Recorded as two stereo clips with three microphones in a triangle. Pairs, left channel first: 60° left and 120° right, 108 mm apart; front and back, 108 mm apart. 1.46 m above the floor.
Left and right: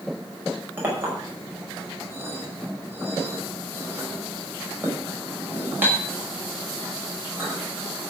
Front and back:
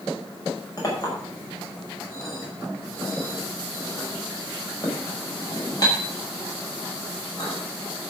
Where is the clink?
50° right, 5.5 m.